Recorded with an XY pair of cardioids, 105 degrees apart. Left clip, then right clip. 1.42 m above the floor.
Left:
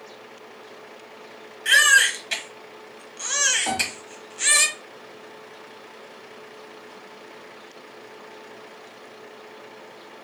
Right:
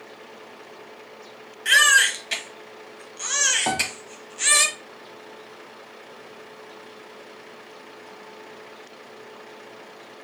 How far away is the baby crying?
About 1.0 m.